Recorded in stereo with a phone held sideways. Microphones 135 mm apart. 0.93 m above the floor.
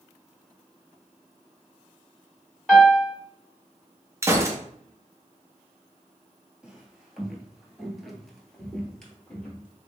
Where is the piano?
Centre (ahead or behind), 1.4 m.